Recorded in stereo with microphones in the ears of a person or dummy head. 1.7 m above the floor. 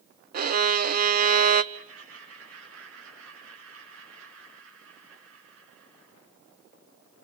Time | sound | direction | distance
0.3 | a violin | 50° right (ahead or behind) | 0.7 m
1.7 | laughter | 80° right | 6 m